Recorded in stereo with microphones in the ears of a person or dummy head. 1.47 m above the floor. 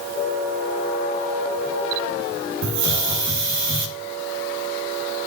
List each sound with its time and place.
2.6 s a hiss: 70° right (ahead or behind), 2.5 m